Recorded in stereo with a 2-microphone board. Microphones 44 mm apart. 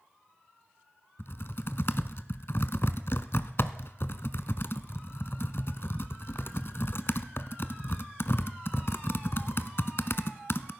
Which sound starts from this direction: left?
Typing on a keyboard, at 1.2 s.